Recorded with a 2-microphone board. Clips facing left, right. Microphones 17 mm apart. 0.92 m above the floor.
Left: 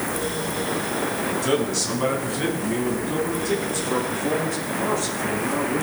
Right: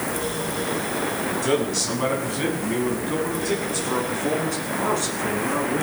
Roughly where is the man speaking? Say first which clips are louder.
Right 1 dB; centre.